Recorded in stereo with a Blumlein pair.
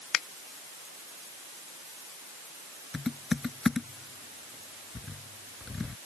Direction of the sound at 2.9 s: 10° left.